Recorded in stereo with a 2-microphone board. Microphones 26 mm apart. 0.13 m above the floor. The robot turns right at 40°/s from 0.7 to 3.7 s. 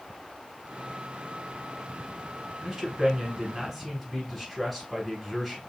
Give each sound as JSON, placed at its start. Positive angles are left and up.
{"t": 2.6, "sound": "a man speaking", "azimuth_deg": -50, "distance_m": 1.3}